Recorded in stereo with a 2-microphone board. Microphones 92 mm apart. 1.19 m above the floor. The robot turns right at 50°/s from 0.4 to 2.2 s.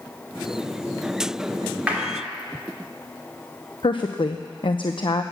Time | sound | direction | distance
1.9 | a clap | 15° right (ahead or behind) | 3 m
3.8 | a woman speaking | 65° left (ahead or behind) | 0.7 m